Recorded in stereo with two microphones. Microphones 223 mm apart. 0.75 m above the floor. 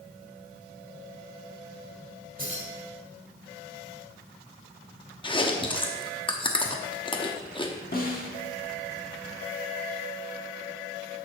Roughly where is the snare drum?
Left.